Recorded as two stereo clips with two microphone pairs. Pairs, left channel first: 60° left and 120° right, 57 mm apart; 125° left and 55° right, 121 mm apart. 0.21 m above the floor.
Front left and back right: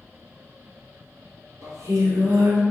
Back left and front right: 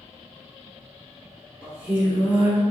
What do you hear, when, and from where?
1.6 s singing: 130° right, 1.6 m